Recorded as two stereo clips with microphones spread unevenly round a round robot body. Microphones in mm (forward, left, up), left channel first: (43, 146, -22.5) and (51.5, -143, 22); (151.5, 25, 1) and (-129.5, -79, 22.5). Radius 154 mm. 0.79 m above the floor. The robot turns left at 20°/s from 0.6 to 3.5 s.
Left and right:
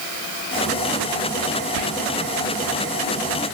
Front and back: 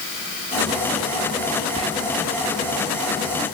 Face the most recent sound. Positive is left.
turn(degrees=-120)